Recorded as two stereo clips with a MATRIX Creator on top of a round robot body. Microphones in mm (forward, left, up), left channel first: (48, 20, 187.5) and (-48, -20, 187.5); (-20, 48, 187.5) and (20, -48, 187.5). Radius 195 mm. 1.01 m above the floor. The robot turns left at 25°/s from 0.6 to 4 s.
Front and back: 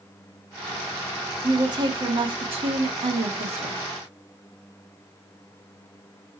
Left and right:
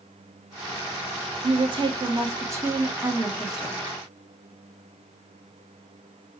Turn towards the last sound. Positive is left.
turn(degrees=-165)